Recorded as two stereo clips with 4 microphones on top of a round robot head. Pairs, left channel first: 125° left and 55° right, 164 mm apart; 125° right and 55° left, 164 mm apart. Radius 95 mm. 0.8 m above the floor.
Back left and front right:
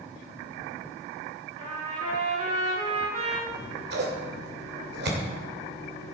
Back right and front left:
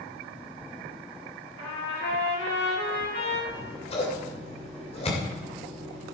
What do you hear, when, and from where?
1.6 s a trumpet: 115° right, 4.5 m
3.5 s scissors: 70° right, 2.5 m